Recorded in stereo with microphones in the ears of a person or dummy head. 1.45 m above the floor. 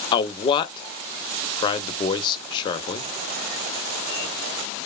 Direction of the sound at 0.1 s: 20° left (ahead or behind).